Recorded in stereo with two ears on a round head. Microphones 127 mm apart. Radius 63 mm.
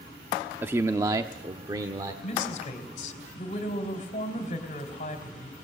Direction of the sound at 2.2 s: 45° left (ahead or behind).